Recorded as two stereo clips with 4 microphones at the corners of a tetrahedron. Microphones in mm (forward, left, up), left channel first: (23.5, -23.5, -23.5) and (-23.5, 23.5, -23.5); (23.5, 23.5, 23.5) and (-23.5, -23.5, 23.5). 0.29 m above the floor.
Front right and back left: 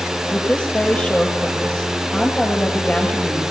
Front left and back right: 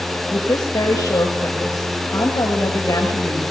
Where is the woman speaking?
25° left, 6.5 m.